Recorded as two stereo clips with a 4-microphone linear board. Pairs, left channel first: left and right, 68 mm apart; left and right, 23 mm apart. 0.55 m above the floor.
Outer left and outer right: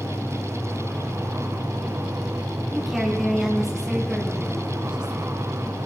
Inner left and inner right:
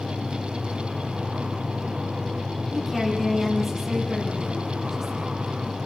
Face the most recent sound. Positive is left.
turn(degrees=-15)  # may be behind; listen again after turning